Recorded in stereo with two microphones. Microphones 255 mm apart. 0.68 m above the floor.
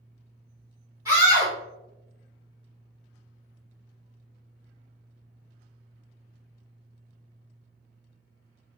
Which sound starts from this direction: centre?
A scream, at 1.1 s.